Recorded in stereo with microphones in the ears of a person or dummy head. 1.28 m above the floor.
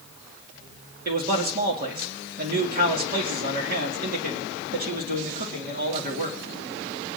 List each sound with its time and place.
1.1 s a man speaking: 45° right (ahead or behind), 2.5 m